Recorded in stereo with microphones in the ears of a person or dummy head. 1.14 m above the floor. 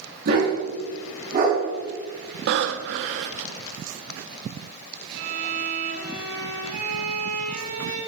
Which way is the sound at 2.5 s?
65° right (ahead or behind).